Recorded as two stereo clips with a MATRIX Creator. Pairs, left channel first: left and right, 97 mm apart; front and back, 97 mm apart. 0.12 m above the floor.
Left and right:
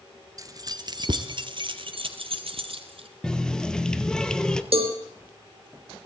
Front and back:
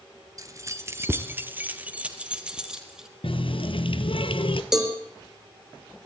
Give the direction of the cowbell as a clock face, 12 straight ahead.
3 o'clock.